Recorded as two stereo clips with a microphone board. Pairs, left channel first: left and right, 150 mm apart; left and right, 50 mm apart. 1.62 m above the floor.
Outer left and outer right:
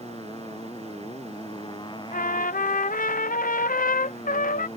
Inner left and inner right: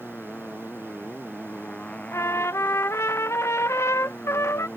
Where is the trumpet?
65° left (ahead or behind).